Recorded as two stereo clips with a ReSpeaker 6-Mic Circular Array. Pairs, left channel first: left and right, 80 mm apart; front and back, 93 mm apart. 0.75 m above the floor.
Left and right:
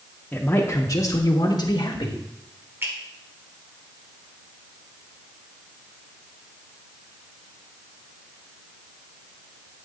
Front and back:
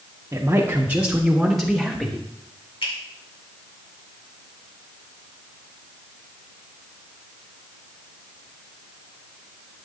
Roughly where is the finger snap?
Ahead right.